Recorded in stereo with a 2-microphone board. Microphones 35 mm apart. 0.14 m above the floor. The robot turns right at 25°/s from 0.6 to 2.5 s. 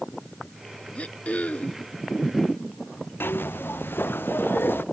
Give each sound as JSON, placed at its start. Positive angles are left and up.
{"t": 0.9, "sound": "throat clearing", "side_deg": 40}
{"t": 3.2, "sound": "a zipper", "side_deg": 85}